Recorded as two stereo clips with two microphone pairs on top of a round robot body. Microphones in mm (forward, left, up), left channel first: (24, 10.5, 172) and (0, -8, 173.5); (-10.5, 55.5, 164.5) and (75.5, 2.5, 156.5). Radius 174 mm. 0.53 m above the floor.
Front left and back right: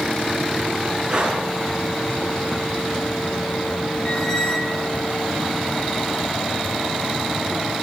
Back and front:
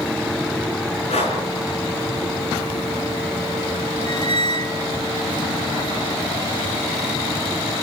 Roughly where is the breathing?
Behind left.